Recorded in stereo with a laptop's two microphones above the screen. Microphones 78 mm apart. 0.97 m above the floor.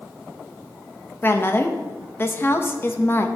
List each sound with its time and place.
1.2 s a woman speaking: 30° left (ahead or behind), 0.6 m